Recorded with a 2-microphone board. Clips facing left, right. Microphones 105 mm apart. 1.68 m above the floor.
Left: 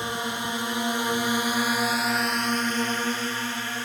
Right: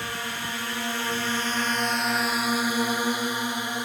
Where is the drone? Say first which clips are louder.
Left 3 dB; 20° left (ahead or behind); by 3.9 s 15° right (ahead or behind).